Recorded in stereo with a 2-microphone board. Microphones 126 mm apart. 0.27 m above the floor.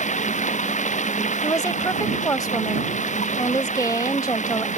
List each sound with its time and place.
0.0 s running water: 75° left (ahead or behind)
1.4 s a woman speaking: 30° left (ahead or behind)